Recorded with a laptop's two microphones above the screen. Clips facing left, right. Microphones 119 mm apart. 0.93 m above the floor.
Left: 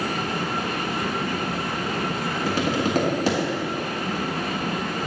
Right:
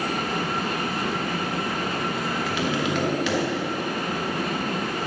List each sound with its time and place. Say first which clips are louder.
2.5 s tapping: left 4 dB; 40° left (ahead or behind), 1.2 m